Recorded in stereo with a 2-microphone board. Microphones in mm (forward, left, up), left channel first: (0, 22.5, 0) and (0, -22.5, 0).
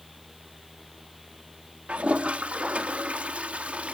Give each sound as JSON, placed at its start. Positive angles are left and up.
{"t": 1.9, "sound": "a toilet flushing", "side_deg": -30, "distance_m": 1.2}